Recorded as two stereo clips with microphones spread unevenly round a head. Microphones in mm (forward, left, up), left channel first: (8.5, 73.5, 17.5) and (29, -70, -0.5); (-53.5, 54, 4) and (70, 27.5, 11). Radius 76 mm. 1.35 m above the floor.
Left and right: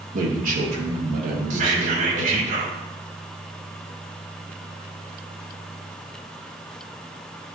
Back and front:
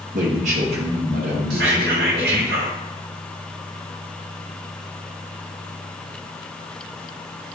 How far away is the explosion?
I don't hear an explosion.